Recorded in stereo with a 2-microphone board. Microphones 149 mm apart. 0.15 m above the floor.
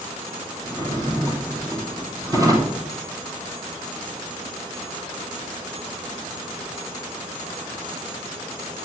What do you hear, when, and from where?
0.6 s a drawer: 25° right (ahead or behind), 2 m